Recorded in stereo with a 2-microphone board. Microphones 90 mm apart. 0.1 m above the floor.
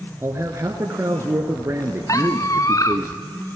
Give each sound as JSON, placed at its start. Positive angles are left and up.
{"t": 0.2, "sound": "a man speaking", "side_deg": -30, "distance_m": 1.3}
{"t": 2.1, "sound": "a squeak", "side_deg": 35, "distance_m": 1.3}